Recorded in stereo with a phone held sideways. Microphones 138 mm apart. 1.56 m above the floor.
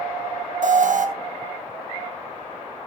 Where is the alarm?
65° right (ahead or behind), 1.5 m.